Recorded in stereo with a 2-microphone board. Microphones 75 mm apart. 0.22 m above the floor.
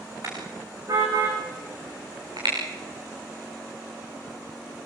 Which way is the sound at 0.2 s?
55° right (ahead or behind).